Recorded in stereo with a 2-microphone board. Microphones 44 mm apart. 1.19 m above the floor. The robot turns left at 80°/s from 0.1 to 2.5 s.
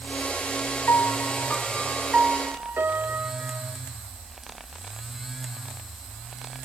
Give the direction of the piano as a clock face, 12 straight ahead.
9 o'clock.